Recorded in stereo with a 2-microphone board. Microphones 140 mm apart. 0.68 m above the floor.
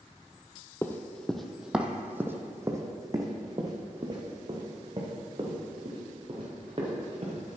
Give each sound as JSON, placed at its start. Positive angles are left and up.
{"t": 0.8, "sound": "running footsteps", "side_deg": 15, "distance_m": 0.8}